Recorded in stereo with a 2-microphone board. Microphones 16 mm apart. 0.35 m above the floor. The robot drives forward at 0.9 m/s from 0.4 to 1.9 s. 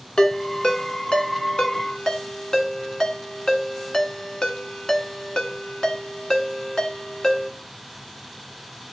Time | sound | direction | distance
0.2 | a ringtone | 55° left (ahead or behind) | 1.5 m